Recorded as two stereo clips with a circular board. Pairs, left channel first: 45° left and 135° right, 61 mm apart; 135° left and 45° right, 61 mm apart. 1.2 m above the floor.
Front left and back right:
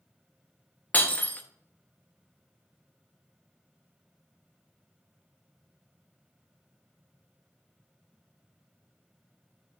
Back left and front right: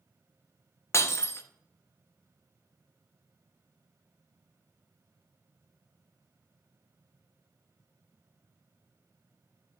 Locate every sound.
0.9 s breaking glass: 105° left, 0.7 m